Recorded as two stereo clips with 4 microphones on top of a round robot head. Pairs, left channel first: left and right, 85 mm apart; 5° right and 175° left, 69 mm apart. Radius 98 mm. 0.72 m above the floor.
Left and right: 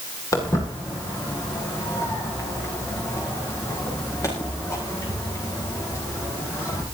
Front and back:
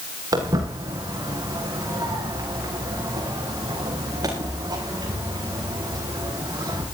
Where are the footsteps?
140° left, 7 m.